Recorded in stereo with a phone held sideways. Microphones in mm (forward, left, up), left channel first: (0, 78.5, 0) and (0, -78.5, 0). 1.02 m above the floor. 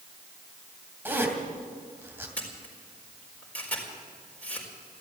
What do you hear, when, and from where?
1.1 s a zipper: 15° right (ahead or behind), 2.5 m
2.4 s a camera shutter: 10° left (ahead or behind), 4 m